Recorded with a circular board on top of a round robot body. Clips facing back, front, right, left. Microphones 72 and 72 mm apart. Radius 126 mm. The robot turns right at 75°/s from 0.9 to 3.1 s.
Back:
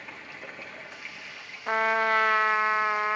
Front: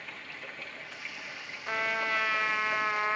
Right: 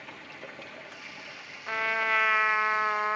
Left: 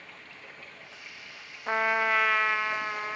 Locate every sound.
0.0 s running water: 110° right, 1.2 m; by 3.2 s 55° left, 1.2 m
1.7 s a trumpet: 140° left, 0.6 m; by 3.2 s 110° right, 0.6 m